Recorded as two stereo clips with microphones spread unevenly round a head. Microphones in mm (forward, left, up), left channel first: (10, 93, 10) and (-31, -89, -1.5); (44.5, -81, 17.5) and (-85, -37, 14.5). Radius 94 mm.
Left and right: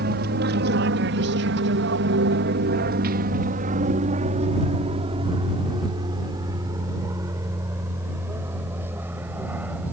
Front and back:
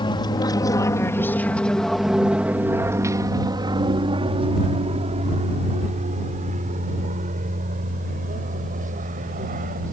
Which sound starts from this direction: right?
An aircraft, at 0.0 s.